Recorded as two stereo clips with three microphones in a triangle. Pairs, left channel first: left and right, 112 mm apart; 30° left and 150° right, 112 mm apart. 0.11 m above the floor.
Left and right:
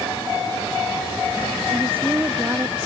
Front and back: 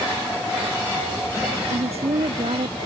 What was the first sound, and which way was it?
A woman speaking, 160° right.